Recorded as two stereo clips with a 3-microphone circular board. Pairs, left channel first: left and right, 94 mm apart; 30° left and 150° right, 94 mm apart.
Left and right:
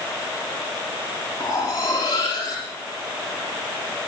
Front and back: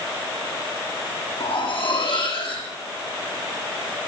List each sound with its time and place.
1.4 s cutlery clinking: 40° left, 9 m